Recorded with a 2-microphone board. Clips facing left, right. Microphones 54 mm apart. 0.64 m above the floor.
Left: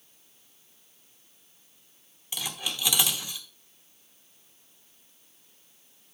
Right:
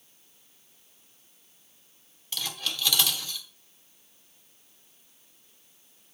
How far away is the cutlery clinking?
About 1.0 m.